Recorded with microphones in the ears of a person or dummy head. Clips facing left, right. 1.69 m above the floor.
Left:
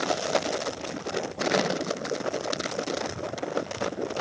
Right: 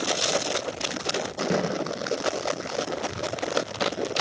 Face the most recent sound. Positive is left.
turn(degrees=-80)